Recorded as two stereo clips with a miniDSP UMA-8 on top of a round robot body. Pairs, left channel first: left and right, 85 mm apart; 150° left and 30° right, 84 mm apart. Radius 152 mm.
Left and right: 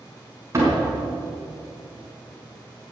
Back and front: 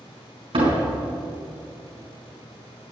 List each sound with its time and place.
0.5 s a door slam: 35° right, 4.5 m